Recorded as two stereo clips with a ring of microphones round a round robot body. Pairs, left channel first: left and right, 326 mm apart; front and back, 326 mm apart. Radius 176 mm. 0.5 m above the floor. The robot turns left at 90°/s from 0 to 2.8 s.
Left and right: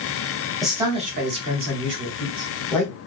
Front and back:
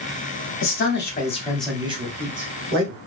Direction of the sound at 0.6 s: 5° left.